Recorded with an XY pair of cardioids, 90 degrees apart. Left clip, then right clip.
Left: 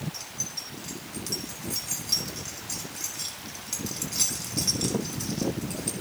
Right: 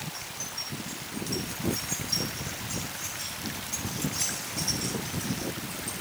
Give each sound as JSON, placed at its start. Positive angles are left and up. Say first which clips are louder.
{"t": 0.1, "sound": "keys jangling", "louder": "left 1 dB", "azimuth_deg": 70, "distance_m": 1.8}